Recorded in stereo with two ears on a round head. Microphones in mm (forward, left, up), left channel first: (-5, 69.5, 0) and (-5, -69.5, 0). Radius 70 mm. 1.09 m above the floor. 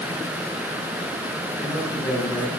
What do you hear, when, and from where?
1.6 s a man speaking: 25° left (ahead or behind), 8 m